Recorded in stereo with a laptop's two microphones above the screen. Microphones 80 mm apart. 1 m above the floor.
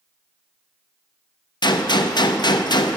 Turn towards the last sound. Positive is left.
turn(degrees=65)  # may be behind; listen again after turning